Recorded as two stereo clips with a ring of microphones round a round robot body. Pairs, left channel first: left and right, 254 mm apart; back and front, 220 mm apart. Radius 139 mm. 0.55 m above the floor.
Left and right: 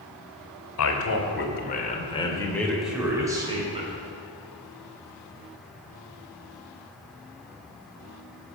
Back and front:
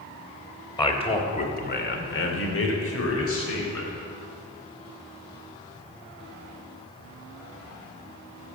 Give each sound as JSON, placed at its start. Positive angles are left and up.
{"t": 0.8, "sound": "a man speaking", "azimuth_deg": 110, "distance_m": 3.0}